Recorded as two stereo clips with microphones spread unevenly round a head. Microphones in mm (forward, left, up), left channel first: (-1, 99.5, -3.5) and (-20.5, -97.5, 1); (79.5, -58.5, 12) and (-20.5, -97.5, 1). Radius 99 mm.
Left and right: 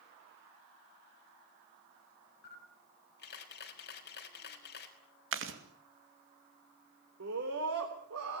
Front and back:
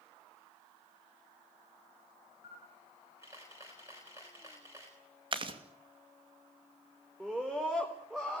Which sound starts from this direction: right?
A scream, at 7.2 s.